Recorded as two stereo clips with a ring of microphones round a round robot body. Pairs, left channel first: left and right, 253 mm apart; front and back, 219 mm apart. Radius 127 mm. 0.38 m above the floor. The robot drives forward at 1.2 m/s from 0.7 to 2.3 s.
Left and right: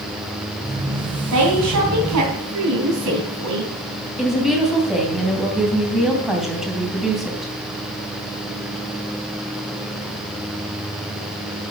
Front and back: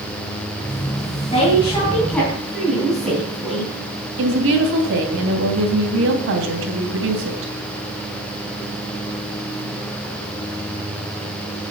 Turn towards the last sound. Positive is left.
turn(degrees=180)